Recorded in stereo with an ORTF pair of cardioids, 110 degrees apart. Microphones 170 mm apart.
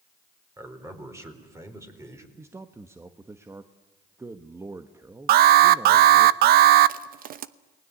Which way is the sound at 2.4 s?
15° right.